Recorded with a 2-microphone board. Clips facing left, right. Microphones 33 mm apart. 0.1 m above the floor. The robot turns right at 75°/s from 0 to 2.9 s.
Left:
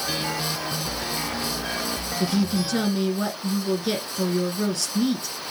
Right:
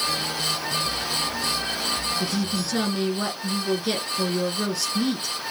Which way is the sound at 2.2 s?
15° left (ahead or behind).